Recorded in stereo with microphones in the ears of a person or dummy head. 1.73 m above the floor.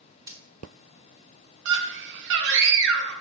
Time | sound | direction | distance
0.3 | breaking glass | 20° right (ahead or behind) | 2 m
1.6 | a scream | 65° right (ahead or behind) | 1.3 m